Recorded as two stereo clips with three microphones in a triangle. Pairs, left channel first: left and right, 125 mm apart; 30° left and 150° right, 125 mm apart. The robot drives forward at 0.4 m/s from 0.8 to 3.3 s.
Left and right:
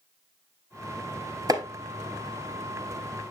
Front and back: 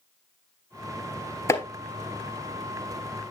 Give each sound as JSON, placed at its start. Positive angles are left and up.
{"t": 1.5, "sound": "chopping", "azimuth_deg": -35, "distance_m": 1.4}